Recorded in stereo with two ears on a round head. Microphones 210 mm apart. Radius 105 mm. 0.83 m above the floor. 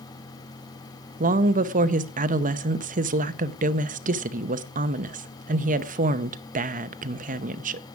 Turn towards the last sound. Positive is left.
turn(degrees=-35)  # may be behind; listen again after turning